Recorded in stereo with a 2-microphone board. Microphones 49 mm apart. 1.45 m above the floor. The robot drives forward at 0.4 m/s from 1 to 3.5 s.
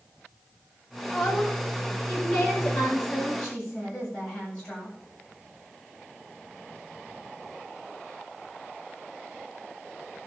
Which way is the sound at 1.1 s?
15° left (ahead or behind).